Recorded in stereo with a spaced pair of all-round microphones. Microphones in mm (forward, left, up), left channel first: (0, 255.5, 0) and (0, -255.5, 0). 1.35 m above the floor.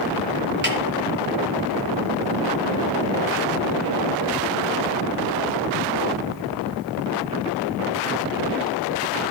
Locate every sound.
0.6 s a snare drum: 20° right (ahead or behind), 3 m